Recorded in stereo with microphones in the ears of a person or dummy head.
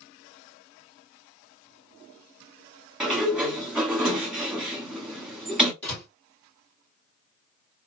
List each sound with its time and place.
3.0 s a sliding door: 5° right (ahead or behind), 0.8 m
5.8 s a door slam: 10° left (ahead or behind), 2.0 m